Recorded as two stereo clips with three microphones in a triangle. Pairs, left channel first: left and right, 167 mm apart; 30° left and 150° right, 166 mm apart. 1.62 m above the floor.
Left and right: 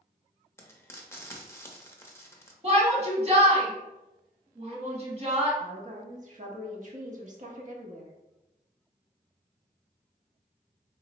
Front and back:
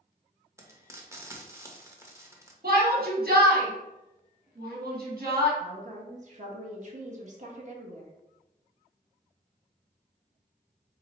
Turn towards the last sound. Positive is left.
turn(degrees=-120)